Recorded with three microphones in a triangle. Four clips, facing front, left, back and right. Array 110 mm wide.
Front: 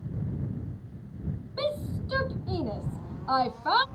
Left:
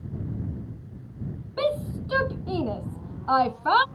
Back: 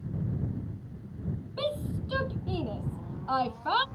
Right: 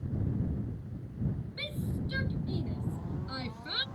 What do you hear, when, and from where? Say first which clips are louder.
1.6 s a shout: left 17 dB, front 2 dB; 80° left; by 3.9 s 75° left